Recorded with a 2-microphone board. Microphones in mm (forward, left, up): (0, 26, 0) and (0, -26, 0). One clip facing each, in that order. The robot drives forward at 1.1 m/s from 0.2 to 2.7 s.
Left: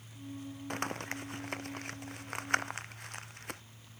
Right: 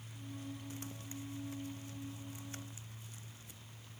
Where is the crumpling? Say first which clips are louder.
Left 10 dB; 80° left; by 3.6 s 85° left.